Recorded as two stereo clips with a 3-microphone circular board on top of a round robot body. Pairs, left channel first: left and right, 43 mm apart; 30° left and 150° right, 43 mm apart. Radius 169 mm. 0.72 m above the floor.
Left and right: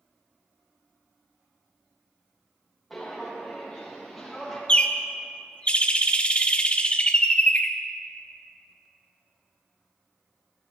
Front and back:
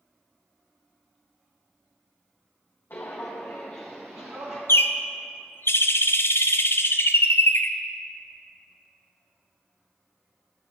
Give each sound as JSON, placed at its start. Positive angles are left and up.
{"t": 2.9, "sound": "footsteps", "azimuth_deg": 0, "distance_m": 1.4}
{"t": 4.7, "sound": "a bird", "azimuth_deg": 30, "distance_m": 0.6}